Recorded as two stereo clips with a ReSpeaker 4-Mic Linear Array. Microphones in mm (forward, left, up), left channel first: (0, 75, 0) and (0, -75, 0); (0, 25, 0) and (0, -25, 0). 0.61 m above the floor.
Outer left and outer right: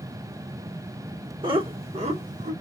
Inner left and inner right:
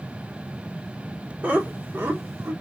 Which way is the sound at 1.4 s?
30° right (ahead or behind).